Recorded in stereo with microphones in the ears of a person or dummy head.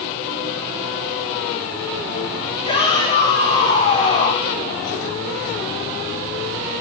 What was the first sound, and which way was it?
A shout, 30° left (ahead or behind).